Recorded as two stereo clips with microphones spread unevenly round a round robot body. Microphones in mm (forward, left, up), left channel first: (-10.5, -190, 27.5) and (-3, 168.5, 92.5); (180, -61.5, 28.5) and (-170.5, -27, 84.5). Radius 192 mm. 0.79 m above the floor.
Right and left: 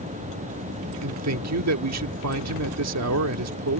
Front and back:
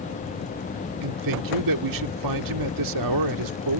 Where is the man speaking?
140° left.